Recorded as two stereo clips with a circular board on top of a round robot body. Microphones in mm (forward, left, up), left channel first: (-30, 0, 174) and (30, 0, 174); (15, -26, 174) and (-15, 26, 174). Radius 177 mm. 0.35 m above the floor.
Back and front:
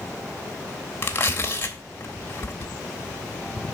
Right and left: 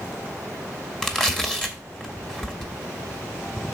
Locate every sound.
1.0 s tearing paper: 140° right, 1.9 m